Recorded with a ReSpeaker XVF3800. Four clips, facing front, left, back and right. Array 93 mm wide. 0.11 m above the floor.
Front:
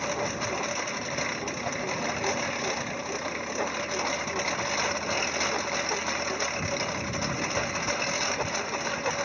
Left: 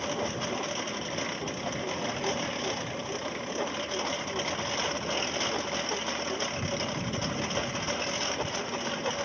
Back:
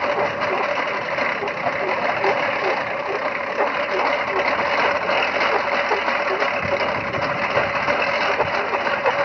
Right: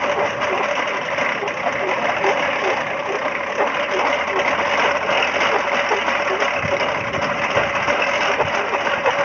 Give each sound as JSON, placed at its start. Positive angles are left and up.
{"t": 0.0, "sound": "a lawn mower", "azimuth_deg": -130}